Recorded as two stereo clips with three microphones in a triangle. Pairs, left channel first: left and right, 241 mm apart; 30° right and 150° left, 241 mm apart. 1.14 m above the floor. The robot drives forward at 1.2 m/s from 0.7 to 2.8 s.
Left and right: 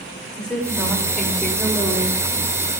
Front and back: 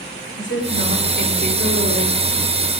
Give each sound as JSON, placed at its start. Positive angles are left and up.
{"t": 0.4, "sound": "a woman speaking", "azimuth_deg": 5, "distance_m": 5.5}